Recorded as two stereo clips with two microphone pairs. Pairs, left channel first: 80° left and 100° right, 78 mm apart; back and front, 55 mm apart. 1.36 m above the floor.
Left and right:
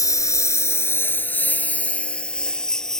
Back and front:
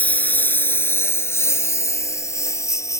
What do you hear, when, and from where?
0.0 s a lawn mower: 125° left; by 3.0 s 165° left